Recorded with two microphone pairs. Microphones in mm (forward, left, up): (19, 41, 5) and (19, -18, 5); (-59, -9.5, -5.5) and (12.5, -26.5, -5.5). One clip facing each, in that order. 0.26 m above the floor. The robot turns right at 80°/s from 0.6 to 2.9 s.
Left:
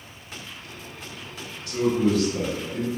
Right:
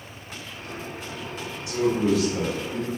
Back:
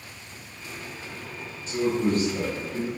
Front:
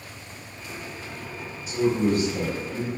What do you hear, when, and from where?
1.7 s a man speaking: 85° right, 1.2 m; by 2.9 s 15° left, 1.2 m